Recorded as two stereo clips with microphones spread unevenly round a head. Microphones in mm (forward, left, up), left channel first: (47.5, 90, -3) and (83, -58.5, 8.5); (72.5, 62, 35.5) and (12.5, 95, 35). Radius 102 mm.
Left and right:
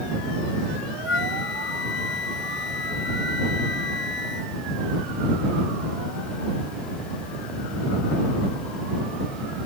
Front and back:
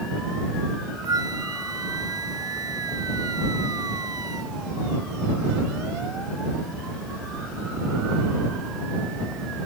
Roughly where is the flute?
Behind left.